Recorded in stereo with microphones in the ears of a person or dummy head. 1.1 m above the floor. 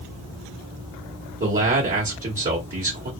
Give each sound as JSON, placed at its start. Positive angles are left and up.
{"t": 1.4, "sound": "a man speaking", "side_deg": -40, "distance_m": 1.2}